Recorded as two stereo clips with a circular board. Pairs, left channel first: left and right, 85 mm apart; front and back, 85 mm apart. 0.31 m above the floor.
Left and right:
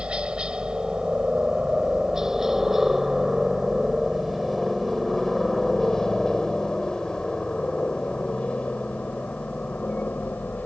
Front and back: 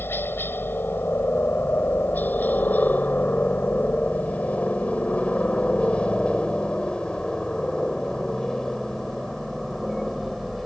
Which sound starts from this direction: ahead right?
A helicopter, at 0.0 s.